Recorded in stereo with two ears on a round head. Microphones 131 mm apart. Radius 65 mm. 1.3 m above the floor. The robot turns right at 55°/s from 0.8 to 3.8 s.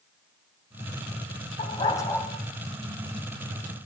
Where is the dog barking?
135° left, 3 m; by 2.3 s 175° left, 3 m.